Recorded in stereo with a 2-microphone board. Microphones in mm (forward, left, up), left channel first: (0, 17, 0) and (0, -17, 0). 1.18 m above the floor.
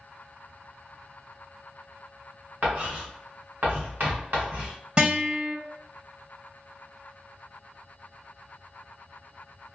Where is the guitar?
25° right (ahead or behind), 1.1 m.